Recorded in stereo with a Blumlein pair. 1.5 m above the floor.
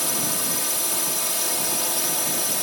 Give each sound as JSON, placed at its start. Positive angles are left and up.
{"t": 0.0, "sound": "a drone", "azimuth_deg": 5}